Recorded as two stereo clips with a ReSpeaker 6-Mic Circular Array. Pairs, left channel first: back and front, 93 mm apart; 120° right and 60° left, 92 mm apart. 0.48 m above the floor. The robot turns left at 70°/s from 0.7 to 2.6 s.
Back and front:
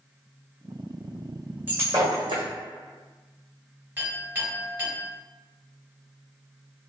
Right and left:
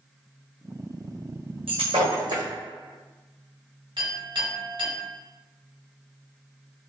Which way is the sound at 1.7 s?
70° left.